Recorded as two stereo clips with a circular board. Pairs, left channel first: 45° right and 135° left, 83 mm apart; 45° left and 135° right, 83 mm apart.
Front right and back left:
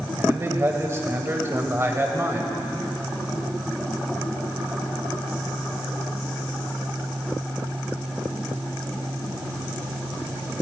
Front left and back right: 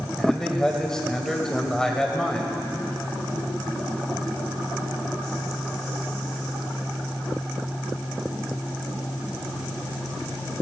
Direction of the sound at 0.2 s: 120° left.